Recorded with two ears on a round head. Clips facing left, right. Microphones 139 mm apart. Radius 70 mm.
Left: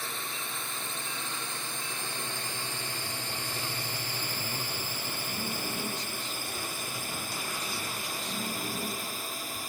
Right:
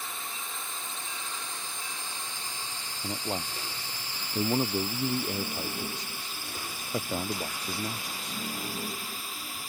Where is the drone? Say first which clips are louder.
Left 1 dB; 55° left (ahead or behind); by 9.7 s 40° left (ahead or behind).